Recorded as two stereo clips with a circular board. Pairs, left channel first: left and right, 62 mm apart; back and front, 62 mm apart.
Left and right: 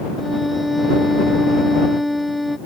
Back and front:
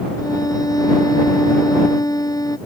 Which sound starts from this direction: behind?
A violin, at 0.2 s.